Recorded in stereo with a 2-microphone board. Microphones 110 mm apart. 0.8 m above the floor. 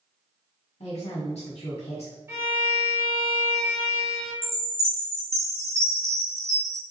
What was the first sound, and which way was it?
A woman speaking, 75° left (ahead or behind).